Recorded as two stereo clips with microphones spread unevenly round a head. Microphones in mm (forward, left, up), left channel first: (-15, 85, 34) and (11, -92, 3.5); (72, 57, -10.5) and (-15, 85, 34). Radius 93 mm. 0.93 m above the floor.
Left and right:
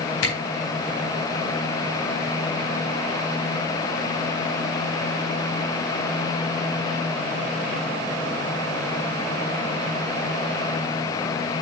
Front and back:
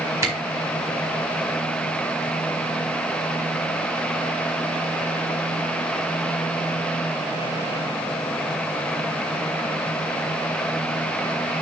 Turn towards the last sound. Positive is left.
turn(degrees=110)